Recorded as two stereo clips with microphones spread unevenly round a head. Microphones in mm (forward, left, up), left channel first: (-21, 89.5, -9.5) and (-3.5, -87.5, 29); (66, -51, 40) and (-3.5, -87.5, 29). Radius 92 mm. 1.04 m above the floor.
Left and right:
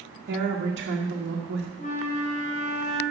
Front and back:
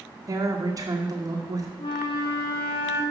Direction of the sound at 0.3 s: 110° right.